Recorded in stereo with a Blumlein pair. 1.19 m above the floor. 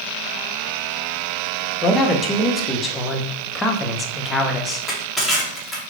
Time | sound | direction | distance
1.8 | a man speaking | 15° left | 0.8 m
4.7 | crushing | straight ahead | 1.2 m